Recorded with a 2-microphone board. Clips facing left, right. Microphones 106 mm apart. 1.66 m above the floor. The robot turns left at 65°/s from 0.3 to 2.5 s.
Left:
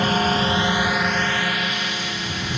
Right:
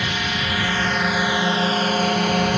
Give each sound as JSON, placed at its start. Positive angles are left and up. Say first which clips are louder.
{"t": 0.0, "sound": "a drone", "louder": "left 6 dB", "azimuth_deg": 50}